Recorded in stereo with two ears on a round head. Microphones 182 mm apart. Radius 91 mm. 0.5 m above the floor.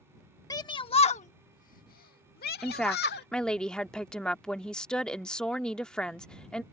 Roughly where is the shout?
Centre.